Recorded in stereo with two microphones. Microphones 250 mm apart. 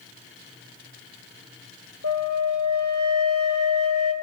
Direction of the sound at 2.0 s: 65° right (ahead or behind).